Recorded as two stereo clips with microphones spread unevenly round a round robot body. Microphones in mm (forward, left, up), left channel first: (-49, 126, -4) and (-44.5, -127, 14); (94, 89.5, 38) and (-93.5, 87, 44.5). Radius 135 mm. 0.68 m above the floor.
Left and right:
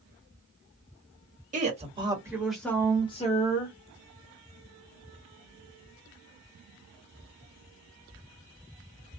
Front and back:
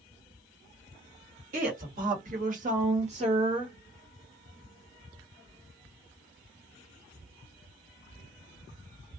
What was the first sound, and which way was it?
A woman speaking, 145° right.